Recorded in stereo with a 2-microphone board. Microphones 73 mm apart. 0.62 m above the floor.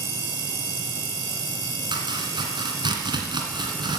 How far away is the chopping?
About 2 m.